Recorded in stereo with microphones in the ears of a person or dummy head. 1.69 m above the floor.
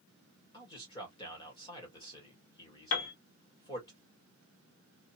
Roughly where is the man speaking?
Left.